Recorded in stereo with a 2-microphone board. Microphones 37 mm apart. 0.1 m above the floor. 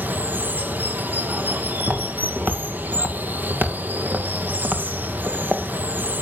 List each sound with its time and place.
0.0 s running water: 55° right (ahead or behind), 1.0 m
1.8 s footsteps: 70° right (ahead or behind), 3.5 m; by 5.7 s 40° right (ahead or behind), 1.9 m